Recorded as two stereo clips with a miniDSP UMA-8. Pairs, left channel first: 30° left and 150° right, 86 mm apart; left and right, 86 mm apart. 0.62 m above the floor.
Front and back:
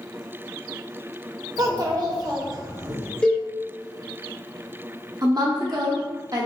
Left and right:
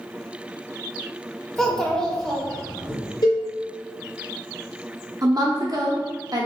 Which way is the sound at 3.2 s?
105° left.